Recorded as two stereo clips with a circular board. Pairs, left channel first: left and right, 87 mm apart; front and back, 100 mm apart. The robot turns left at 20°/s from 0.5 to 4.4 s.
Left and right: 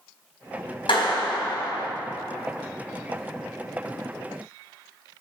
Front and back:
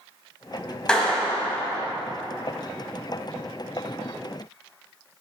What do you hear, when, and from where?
0.9 s a clap: 80° left, 4 m; by 1.9 s 60° left, 4 m